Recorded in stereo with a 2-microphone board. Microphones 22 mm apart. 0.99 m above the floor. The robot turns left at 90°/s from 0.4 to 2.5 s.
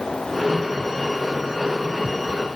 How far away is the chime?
I don't hear a chime.